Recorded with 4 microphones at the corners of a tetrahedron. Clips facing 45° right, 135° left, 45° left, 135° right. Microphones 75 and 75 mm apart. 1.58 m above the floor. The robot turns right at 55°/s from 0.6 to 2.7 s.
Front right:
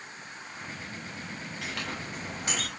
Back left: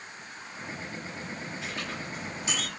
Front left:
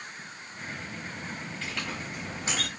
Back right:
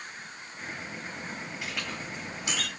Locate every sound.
1.6 s a clink: 55° right, 5 m; by 2.7 s straight ahead, 5 m